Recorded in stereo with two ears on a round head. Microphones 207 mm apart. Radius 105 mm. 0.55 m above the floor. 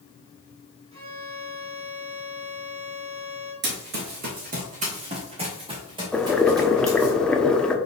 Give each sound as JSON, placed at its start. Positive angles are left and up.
{"t": 0.9, "sound": "a violin", "side_deg": -25, "distance_m": 4.0}
{"t": 3.6, "sound": "running footsteps", "side_deg": -45, "distance_m": 3.0}
{"t": 6.1, "sound": "boiling", "side_deg": 5, "distance_m": 0.9}